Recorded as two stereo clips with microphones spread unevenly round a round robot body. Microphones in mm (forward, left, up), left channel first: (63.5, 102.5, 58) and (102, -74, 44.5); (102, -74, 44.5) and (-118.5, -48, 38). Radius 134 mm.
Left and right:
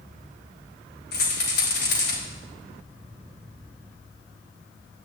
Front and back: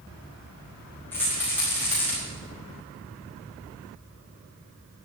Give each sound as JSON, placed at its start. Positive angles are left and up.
{"t": 1.1, "sound": "a rattle", "azimuth_deg": 75, "distance_m": 4.5}